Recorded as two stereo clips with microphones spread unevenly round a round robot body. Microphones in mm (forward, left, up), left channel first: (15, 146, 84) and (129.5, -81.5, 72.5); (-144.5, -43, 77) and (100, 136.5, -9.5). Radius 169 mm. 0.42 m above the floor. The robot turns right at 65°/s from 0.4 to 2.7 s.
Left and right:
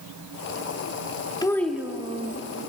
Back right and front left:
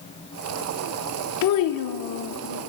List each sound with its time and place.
1.4 s a child speaking: 170° right, 0.7 m; by 2.4 s 105° right, 0.7 m